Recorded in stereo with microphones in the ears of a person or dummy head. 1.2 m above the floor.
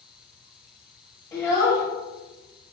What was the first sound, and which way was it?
A child speaking, 20° left (ahead or behind).